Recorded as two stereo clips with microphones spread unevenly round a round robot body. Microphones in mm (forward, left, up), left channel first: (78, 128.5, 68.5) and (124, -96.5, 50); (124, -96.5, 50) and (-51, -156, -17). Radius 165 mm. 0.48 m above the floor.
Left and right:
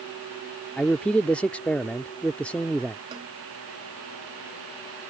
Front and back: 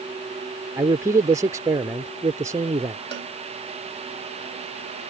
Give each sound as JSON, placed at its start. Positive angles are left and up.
{"t": 0.8, "sound": "a man speaking", "azimuth_deg": -170}
{"t": 3.1, "sound": "a cowbell", "azimuth_deg": -150}